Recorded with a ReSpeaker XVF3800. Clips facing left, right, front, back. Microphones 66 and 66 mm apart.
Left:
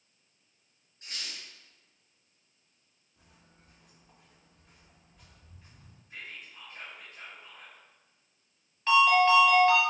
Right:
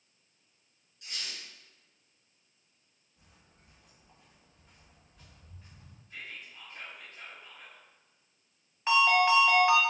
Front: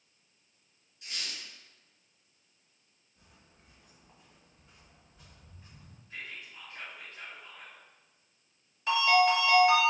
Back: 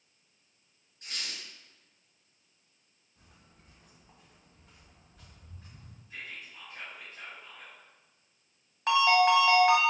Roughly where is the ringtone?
Behind.